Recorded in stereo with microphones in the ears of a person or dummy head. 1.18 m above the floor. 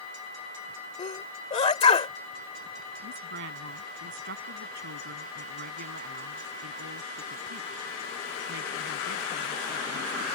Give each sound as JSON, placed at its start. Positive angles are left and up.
{"t": 1.0, "sound": "a sneeze", "side_deg": 25}
{"t": 3.0, "sound": "a woman speaking", "side_deg": -60}